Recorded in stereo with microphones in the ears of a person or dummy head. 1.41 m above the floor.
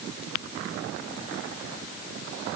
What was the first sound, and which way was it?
Only background noise.